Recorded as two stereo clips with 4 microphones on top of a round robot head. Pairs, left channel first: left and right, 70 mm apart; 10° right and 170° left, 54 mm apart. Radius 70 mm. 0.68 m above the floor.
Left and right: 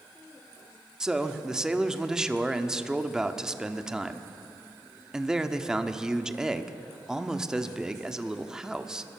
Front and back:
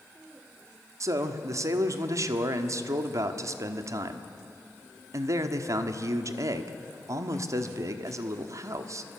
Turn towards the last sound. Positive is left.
turn(degrees=-170)